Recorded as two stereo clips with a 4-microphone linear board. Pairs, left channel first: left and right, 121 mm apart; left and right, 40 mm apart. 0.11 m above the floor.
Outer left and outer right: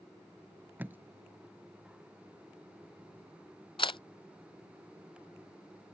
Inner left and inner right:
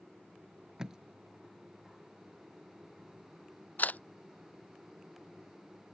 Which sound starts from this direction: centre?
Tape being pulled, at 0.8 s.